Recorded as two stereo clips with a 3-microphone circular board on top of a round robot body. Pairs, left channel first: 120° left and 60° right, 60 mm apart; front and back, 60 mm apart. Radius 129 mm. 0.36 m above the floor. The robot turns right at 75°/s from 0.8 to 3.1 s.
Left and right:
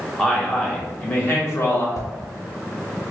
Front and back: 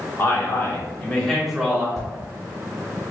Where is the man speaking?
45° left, 1.2 m; by 1.9 s 120° left, 1.2 m.